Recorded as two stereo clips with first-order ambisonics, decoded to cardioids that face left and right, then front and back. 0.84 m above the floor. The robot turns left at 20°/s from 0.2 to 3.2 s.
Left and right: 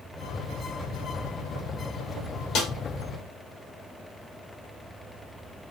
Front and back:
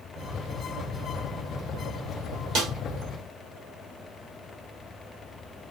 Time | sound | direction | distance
2.5 | a snare drum | 130° left | 1.3 m